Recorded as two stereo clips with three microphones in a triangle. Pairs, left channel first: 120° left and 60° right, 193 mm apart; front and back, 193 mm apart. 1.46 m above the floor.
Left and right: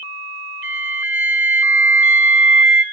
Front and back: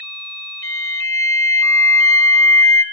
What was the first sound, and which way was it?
A flute, 135° right.